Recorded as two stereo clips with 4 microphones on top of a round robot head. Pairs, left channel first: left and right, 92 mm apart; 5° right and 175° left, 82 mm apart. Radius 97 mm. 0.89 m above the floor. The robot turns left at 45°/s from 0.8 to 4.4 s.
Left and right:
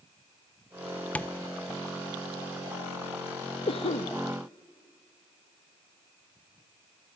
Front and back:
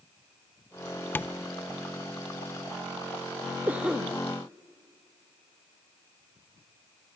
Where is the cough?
110° left, 0.9 m; by 4.1 s 85° left, 0.9 m.